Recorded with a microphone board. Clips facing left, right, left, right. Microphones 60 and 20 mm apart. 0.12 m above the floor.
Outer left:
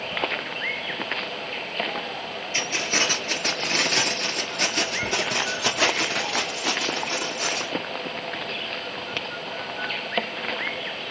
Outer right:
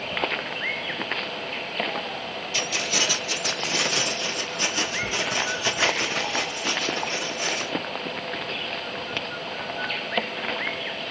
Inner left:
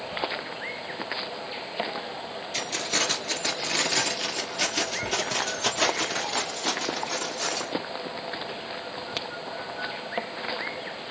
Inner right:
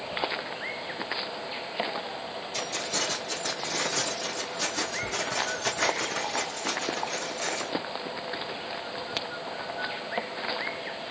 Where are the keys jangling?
30° left (ahead or behind), 1.2 m; by 7.7 s 65° left (ahead or behind), 3 m.